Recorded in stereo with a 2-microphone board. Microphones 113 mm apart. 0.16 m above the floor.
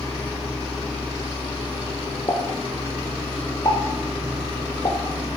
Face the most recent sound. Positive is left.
turn(degrees=35)  # may be behind; listen again after turning